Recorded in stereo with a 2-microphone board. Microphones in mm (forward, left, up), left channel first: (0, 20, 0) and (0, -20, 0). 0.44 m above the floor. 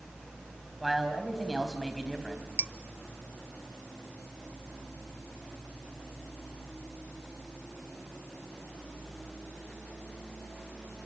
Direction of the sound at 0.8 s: 5° right (ahead or behind).